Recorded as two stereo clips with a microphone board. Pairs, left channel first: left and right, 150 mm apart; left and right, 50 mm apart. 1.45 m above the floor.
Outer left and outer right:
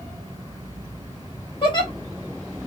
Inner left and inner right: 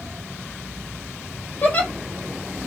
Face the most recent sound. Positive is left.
turn(degrees=35)  # may be behind; listen again after turning